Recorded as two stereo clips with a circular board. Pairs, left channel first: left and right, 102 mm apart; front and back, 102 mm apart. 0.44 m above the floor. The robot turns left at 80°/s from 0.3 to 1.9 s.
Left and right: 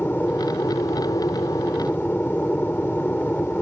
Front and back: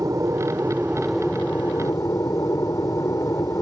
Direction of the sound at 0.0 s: 155° left.